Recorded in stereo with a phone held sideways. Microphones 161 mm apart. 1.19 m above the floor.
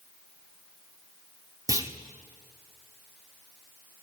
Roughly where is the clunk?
Right.